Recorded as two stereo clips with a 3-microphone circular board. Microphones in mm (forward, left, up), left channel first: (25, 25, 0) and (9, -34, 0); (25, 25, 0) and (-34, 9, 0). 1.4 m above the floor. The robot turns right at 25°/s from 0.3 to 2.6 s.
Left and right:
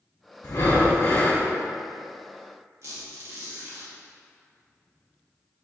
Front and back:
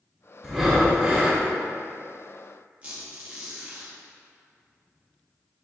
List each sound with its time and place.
0.4 s breathing: 115° left, 1.3 m; by 1.4 s 140° left, 1.3 m
2.8 s a squeak: 105° right, 1.2 m